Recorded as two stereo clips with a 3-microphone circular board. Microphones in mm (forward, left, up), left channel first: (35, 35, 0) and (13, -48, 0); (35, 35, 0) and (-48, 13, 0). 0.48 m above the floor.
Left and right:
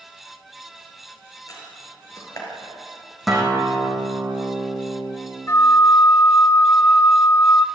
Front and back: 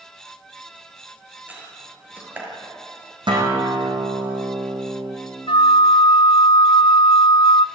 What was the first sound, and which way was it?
A door slam, 125° left.